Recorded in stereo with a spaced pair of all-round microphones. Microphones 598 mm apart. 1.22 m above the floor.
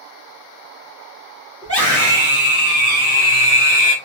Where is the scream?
25° left (ahead or behind), 2.5 m; by 4.0 s 50° left (ahead or behind), 0.7 m.